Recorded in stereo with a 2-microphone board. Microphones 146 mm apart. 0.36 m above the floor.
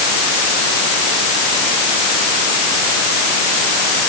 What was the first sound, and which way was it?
Only background noise.